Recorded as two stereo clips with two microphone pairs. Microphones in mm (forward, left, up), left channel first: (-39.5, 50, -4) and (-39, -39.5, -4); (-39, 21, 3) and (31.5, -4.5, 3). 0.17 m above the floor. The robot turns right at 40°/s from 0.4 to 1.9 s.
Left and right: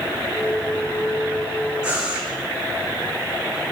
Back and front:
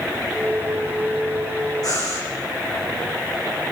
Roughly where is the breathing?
Behind.